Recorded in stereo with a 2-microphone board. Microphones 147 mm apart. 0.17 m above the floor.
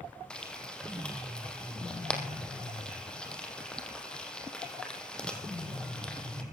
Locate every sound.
0.3 s frying: 5° left (ahead or behind), 3 m